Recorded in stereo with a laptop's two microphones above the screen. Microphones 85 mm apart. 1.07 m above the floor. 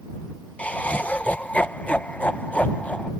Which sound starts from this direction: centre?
Laughter, at 0.6 s.